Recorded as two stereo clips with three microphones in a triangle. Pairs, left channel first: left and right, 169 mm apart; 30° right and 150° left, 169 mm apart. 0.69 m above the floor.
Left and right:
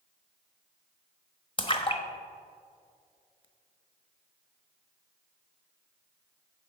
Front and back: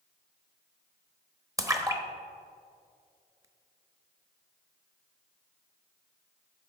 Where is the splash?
100° left, 1.1 m.